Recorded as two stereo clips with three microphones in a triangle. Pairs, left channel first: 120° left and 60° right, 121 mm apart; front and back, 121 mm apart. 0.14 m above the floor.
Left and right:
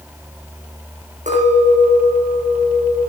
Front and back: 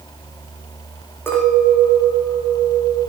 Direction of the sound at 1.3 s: 70° right.